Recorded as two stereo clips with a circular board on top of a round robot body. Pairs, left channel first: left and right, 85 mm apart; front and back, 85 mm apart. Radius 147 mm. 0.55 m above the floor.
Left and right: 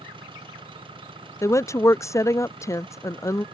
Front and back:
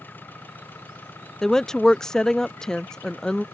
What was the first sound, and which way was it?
An engine running, 70° right.